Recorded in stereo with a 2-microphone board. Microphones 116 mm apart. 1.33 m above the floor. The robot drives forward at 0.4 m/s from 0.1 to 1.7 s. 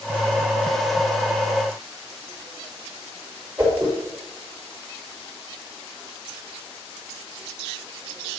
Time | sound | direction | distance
3.6 | a whoosh | 30° right (ahead or behind) | 5 m